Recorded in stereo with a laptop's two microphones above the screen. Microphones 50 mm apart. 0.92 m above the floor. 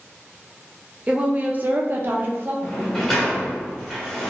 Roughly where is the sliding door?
Centre.